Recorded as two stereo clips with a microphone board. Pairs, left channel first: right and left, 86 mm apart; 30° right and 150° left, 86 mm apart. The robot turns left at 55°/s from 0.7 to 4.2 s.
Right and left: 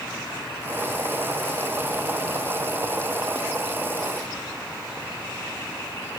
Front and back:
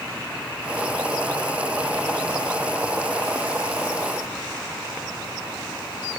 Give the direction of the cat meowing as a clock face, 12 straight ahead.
No cat meowing in this recording.